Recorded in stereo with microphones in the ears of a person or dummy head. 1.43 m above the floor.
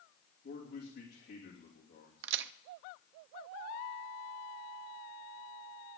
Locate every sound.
0.4 s a man speaking: 60° left (ahead or behind), 3 m
2.2 s a crack: 65° right (ahead or behind), 0.6 m